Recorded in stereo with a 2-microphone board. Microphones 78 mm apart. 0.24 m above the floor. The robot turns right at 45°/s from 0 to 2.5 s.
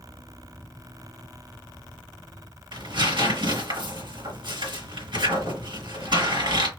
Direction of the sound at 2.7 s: 70° right (ahead or behind).